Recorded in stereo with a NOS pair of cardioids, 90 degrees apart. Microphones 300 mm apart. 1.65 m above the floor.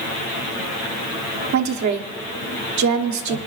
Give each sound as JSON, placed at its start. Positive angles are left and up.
{"t": 1.5, "sound": "a woman speaking", "azimuth_deg": -70, "distance_m": 1.2}